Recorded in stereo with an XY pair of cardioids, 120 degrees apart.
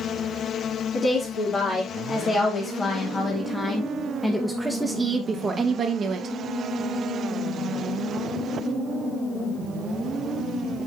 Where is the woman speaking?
40° left, 3 m; by 6.3 s 60° right, 1.3 m.